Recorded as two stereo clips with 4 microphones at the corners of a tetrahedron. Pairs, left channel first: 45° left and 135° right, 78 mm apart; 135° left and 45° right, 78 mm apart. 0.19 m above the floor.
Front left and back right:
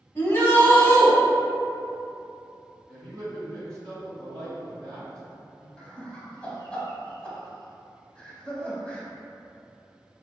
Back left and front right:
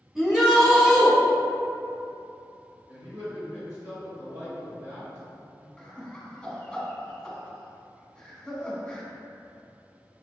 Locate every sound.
0.1 s a shout: 30° left, 1.1 m
2.9 s a man speaking: 30° right, 1.6 m
5.8 s laughter: 80° left, 1.0 m